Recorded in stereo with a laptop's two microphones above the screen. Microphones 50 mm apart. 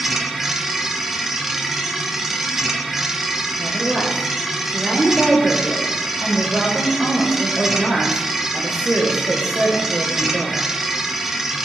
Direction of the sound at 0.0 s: 10° right (ahead or behind).